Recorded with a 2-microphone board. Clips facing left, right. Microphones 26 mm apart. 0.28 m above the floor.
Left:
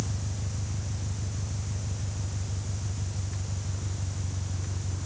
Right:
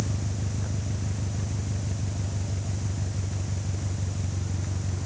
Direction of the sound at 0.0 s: 50° right (ahead or behind).